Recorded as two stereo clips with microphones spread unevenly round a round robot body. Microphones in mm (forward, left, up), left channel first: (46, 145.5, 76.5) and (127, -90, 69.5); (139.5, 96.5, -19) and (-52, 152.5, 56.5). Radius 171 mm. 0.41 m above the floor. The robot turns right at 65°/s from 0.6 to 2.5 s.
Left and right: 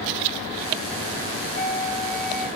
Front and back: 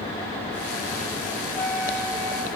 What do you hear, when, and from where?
1.5 s a flute: 170° left, 4 m; by 2.5 s 130° right, 4 m